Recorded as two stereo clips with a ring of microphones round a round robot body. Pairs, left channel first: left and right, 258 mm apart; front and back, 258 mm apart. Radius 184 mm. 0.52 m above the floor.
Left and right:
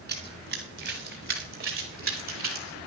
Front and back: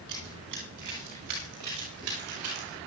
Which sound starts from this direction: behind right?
Running footsteps, at 0.1 s.